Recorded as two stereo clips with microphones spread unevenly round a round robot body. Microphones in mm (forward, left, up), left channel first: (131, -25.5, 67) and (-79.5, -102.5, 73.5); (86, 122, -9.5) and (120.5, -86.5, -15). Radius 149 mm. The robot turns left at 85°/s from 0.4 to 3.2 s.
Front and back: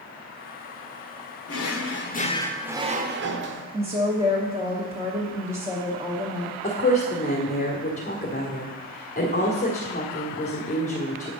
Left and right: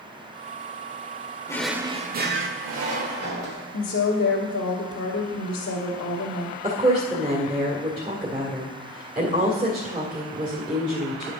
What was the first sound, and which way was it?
A drawer, 25° left.